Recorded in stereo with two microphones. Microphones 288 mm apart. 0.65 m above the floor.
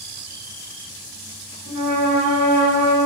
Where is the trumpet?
40° left (ahead or behind), 1.7 m.